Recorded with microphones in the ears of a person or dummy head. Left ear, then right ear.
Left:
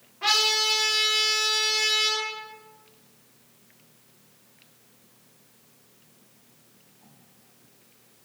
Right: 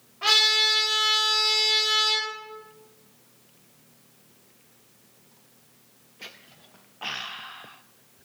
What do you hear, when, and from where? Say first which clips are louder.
0.2 s a trumpet: right 2 dB; 5° right (ahead or behind), 0.9 m